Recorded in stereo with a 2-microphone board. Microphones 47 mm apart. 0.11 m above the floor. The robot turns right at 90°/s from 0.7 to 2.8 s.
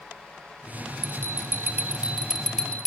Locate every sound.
1.0 s a bell: 120° right, 1.6 m; by 2.9 s 40° left, 1.6 m